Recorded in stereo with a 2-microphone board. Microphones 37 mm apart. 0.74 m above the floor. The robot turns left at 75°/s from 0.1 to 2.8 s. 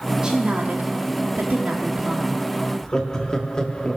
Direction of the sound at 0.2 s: 25° right.